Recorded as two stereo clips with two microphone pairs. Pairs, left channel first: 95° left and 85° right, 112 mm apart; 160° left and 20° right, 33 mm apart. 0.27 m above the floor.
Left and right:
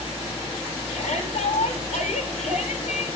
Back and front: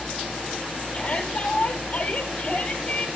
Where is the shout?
105° left, 7.5 m.